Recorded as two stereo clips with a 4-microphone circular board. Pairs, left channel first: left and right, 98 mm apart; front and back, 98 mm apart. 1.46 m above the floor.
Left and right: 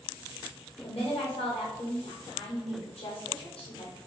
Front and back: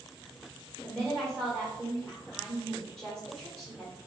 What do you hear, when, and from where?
0.8 s a woman speaking: 95° left, 1.4 m